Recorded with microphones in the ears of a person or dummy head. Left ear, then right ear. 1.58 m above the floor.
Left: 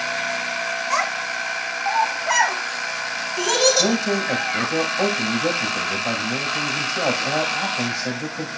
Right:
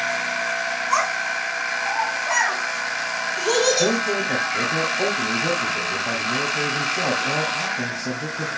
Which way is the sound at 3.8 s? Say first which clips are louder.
Even; 85° left.